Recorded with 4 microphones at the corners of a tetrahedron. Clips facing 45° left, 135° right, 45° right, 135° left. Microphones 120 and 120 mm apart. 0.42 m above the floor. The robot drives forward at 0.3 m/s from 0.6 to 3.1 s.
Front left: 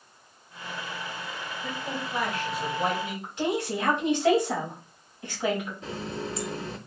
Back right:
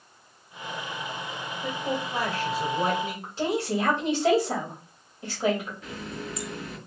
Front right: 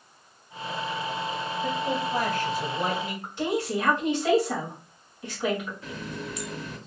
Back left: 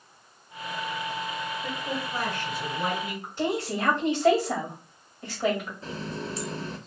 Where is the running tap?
95° left, 0.6 m.